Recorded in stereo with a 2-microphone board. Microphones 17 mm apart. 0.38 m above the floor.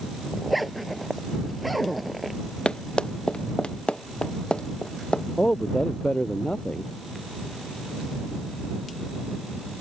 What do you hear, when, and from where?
0.3 s a zipper: centre (ahead or behind)
2.6 s running footsteps: 80° left; by 5.2 s 85° left
5.4 s a man speaking: 85° left